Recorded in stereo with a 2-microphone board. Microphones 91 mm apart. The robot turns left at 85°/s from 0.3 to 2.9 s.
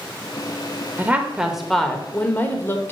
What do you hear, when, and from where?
1.0 s a woman speaking: 20° right (ahead or behind), 1.0 m; by 2.9 s 25° left (ahead or behind), 1.0 m